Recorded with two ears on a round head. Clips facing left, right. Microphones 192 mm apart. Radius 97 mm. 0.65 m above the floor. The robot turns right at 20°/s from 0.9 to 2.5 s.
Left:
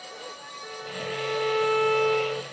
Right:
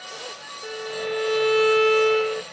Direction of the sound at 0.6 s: 50° right.